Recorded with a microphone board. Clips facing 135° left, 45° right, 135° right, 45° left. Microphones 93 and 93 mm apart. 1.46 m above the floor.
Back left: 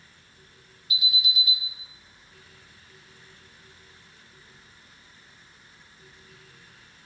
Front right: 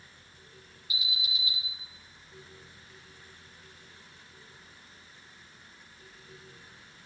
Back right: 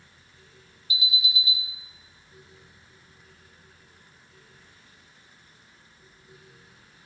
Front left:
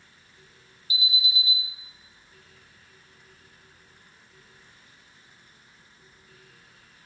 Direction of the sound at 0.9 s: 105° left.